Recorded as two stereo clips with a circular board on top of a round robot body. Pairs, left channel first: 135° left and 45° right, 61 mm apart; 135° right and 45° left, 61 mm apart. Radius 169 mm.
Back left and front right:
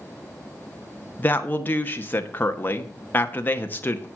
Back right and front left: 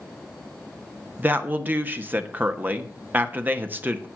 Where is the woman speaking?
90° left, 1.4 m.